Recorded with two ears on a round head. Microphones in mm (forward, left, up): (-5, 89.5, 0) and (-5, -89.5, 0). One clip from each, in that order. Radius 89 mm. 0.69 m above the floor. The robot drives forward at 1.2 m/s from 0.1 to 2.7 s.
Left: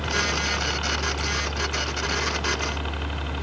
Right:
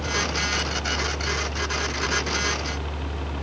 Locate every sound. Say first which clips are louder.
0.0 s a helicopter: left 1 dB; 55° left (ahead or behind); by 3.4 s 50° left (ahead or behind)